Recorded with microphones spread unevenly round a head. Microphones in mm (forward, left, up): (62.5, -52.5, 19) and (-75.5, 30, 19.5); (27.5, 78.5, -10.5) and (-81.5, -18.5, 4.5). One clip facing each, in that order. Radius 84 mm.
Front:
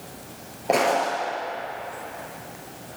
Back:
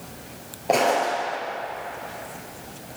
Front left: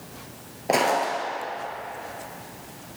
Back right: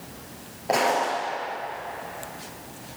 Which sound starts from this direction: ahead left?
Footsteps, at 0.7 s.